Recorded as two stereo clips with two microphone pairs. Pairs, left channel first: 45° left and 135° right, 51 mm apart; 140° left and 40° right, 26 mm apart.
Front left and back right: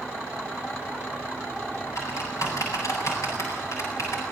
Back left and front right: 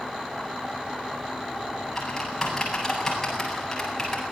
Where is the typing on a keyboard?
65° left, 8.5 m.